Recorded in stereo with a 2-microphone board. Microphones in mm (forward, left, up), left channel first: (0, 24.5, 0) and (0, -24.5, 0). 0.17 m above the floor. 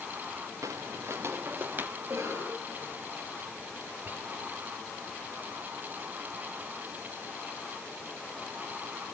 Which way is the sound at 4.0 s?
40° right (ahead or behind).